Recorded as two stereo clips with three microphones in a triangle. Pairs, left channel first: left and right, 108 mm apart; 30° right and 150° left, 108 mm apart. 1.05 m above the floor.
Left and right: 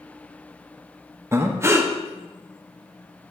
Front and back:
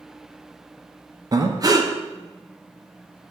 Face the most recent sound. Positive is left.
turn(degrees=-155)